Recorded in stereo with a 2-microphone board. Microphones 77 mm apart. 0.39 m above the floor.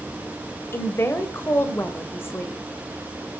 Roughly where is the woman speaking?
Left.